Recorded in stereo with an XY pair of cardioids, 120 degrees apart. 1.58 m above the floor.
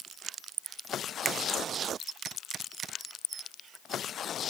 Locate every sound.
1.2 s a finger snap: 35° right, 1.1 m